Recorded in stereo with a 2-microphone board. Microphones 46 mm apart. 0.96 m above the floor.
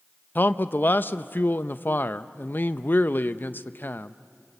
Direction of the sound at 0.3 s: 45° left (ahead or behind).